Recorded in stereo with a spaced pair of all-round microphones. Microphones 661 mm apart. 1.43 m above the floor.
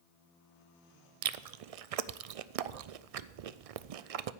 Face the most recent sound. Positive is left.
turn(degrees=-65)  # may be behind; listen again after turning